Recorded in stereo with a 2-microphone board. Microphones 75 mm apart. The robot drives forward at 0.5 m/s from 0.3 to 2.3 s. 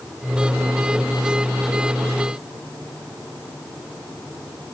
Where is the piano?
No piano in this recording.